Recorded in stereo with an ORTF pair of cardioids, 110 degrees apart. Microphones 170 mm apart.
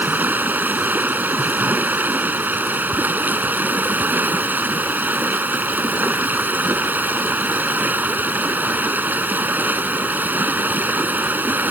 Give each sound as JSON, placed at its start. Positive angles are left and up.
{"t": 0.0, "sound": "running water", "azimuth_deg": -10}